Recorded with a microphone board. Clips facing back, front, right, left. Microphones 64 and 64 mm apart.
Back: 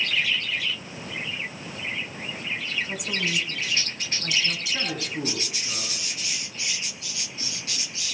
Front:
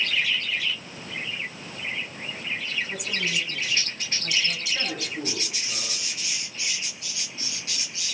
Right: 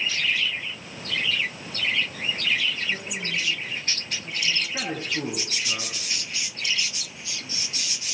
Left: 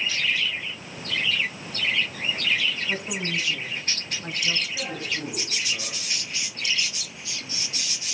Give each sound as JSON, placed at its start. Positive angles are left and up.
{"t": 2.9, "sound": "a woman speaking", "azimuth_deg": 130, "distance_m": 6.5}
{"t": 4.7, "sound": "a man speaking", "azimuth_deg": -125, "distance_m": 8.0}